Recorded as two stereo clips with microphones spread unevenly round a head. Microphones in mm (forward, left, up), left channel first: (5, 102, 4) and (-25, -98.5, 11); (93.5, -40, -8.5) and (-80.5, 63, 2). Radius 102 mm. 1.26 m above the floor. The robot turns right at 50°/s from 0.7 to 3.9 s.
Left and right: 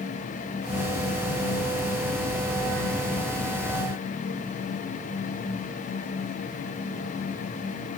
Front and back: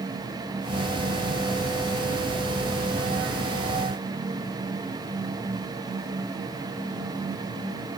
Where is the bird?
No bird in this recording.